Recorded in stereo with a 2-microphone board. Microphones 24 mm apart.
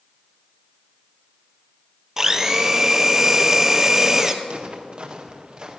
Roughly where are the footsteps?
Right.